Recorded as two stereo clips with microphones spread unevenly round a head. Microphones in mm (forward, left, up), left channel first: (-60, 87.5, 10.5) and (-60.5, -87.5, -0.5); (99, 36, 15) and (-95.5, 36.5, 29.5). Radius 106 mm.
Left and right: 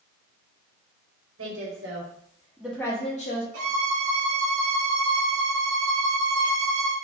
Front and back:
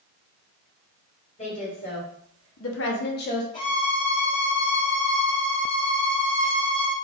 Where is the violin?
70° right, 1.0 m.